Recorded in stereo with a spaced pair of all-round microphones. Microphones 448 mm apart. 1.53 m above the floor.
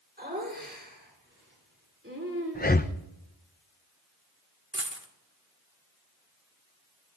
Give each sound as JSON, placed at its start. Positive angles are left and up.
{"t": 0.2, "sound": "laughter", "side_deg": -20, "distance_m": 5.5}
{"t": 2.5, "sound": "breathing", "side_deg": 20, "distance_m": 0.6}
{"t": 4.7, "sound": "a dropped coin", "side_deg": -25, "distance_m": 1.3}